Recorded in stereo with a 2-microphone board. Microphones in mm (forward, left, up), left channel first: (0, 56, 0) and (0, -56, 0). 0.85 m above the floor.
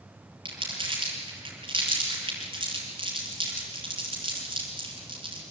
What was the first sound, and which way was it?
Crumpling, 50° right (ahead or behind).